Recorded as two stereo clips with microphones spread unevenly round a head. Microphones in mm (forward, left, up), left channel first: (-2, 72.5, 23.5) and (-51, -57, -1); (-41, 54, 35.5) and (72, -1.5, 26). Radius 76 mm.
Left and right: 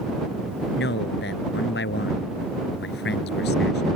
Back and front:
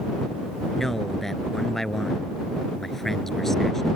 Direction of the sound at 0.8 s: 65° left.